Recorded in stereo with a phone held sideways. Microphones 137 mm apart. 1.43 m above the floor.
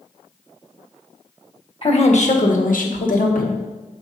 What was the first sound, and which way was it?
A woman speaking, 45° left (ahead or behind).